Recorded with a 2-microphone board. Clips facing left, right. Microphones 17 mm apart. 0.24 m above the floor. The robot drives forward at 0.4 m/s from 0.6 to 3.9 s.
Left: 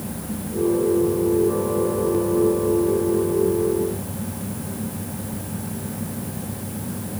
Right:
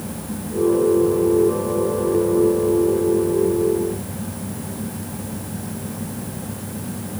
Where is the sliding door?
No sliding door in this recording.